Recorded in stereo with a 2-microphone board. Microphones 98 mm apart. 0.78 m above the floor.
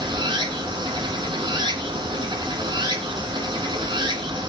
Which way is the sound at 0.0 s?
55° right (ahead or behind).